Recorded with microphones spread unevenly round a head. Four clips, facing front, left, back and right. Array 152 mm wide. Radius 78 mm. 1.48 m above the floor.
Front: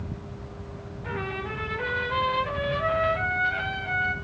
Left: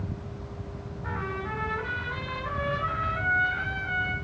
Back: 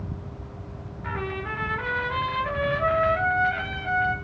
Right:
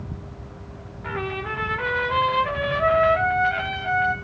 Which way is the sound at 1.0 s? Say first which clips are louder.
Right 5 dB, back 1 dB; 110° right.